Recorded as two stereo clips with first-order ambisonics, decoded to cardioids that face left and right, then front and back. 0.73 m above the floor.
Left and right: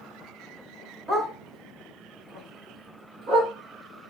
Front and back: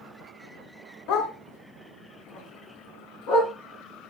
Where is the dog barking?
15° right, 1.0 m; by 3.5 s 30° right, 2.5 m.